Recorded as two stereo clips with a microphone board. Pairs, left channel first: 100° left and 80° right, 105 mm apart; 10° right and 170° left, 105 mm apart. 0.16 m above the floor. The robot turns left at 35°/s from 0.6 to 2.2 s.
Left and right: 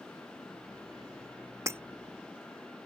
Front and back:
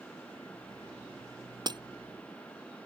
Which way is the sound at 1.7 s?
140° right.